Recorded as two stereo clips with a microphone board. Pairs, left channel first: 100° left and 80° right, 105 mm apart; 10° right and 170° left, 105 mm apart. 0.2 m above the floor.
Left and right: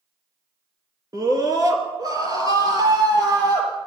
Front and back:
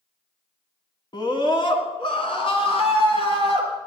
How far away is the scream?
About 2.5 m.